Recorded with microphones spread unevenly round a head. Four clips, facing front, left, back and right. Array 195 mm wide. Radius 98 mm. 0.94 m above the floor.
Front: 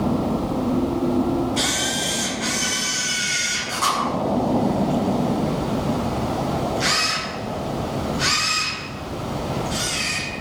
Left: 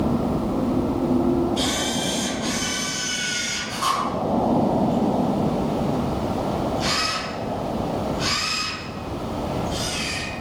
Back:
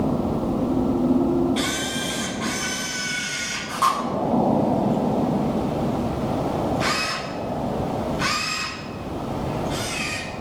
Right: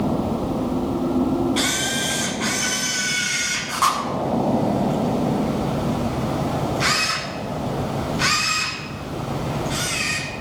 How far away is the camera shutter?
About 7 m.